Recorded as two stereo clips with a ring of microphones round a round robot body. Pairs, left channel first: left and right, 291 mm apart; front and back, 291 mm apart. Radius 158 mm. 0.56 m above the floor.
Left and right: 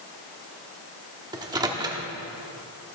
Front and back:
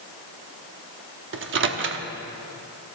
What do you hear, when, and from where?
1.3 s a microwave: 160° right, 0.9 m